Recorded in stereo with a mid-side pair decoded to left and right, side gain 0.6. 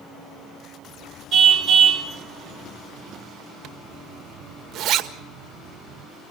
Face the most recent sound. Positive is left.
turn(degrees=-50)